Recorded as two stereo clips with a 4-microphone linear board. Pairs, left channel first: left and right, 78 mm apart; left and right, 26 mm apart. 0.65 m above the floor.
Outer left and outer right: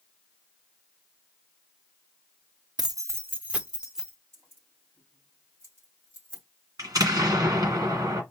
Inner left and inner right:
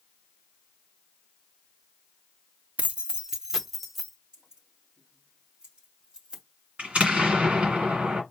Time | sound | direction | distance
2.8 | keys jangling | 60° right (ahead or behind) | 0.5 m
4.3 | keys jangling | 35° right (ahead or behind) | 3 m
6.8 | an explosion | 55° right (ahead or behind) | 2.0 m